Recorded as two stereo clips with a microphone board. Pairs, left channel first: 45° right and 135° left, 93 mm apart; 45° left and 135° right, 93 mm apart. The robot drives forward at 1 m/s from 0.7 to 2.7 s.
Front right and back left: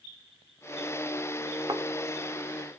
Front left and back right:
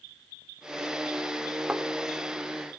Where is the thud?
145° left, 1.3 m; by 1.8 s 150° left, 1.4 m.